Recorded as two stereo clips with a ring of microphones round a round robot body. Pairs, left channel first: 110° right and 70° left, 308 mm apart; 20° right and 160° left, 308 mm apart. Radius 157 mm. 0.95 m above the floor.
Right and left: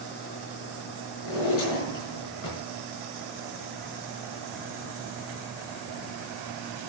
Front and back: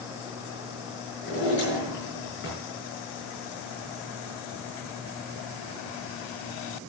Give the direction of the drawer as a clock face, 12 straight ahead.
3 o'clock.